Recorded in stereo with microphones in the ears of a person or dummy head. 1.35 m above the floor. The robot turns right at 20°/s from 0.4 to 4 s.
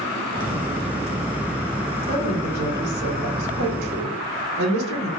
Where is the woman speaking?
145° right, 1.0 m; by 5.1 s 105° right, 1.0 m.